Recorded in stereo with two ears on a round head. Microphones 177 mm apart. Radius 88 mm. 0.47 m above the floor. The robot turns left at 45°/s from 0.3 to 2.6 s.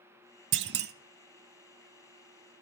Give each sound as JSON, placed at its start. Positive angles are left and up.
{"t": 0.5, "sound": "a clunk", "side_deg": -65, "distance_m": 0.6}